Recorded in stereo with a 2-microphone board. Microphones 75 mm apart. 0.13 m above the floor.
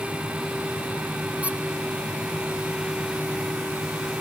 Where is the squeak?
20° right (ahead or behind), 1.1 m.